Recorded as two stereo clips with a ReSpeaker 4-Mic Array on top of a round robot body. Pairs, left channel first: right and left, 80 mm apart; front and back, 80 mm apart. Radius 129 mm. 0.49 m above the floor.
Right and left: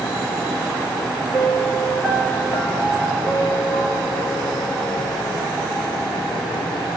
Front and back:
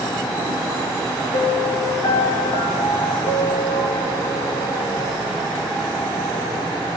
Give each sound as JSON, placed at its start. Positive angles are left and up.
{"t": 1.3, "sound": "a piano", "azimuth_deg": 0, "distance_m": 5.5}